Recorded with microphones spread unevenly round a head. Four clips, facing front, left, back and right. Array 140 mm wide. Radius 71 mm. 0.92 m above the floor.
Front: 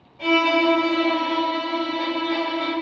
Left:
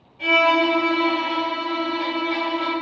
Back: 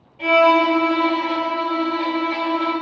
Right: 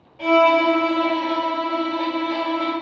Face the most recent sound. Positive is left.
turn(degrees=-90)